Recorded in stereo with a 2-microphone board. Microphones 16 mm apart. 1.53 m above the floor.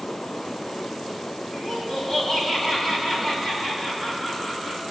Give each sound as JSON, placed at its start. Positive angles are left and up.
{"t": 1.5, "sound": "laughter", "side_deg": 55, "distance_m": 3.0}